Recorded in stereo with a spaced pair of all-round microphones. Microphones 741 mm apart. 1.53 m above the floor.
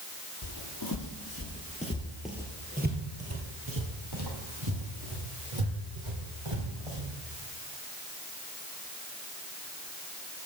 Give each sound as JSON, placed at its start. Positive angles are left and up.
{"t": 0.4, "sound": "footsteps", "side_deg": 35, "distance_m": 1.9}